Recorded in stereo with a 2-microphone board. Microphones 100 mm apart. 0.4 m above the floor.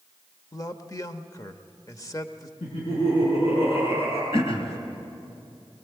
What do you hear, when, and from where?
0.5 s a man speaking: 35° left (ahead or behind), 1.0 m
2.6 s laughter: 75° left (ahead or behind), 5 m
4.3 s throat clearing: 70° left (ahead or behind), 2.5 m